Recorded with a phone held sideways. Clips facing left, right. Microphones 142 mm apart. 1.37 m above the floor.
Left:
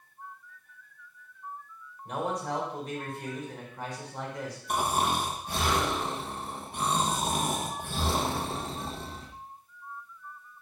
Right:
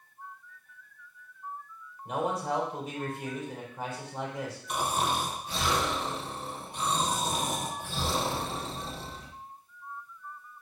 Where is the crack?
No crack in this recording.